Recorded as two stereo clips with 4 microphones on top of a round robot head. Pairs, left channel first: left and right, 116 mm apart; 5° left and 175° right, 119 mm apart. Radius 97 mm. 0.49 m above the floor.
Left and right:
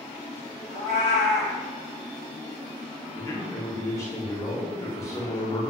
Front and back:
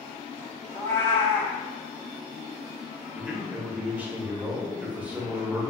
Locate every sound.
0.7 s a cat meowing: 125° right, 0.8 m
3.1 s a man speaking: 120° left, 0.8 m